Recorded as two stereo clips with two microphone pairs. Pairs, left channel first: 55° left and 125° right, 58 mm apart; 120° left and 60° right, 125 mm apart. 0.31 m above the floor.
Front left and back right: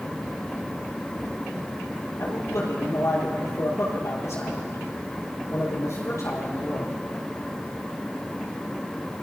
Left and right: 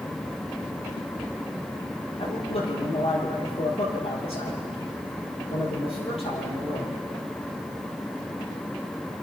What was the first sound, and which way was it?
A man speaking, 85° left.